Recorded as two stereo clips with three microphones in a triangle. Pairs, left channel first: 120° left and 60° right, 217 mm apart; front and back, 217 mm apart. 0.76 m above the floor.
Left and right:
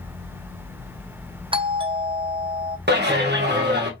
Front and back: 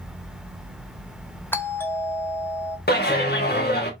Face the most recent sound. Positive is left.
turn(degrees=-30)